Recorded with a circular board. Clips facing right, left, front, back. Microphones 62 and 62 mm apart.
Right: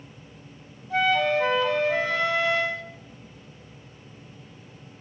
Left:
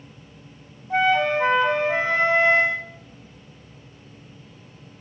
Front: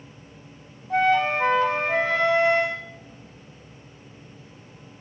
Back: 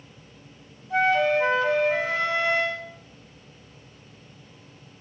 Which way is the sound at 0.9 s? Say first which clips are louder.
Left 2 dB, even; 40° left.